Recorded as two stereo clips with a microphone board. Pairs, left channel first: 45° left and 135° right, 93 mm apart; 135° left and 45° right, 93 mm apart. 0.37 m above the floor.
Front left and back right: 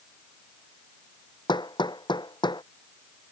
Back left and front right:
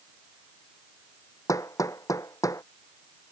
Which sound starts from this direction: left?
Hammering, at 1.5 s.